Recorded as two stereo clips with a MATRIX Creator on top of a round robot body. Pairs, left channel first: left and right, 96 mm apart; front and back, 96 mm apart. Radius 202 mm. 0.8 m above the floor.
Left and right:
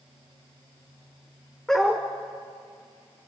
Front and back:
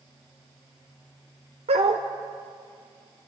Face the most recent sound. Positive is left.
turn(degrees=175)